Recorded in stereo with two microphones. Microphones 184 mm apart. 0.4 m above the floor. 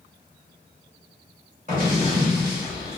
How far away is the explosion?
About 1.9 m.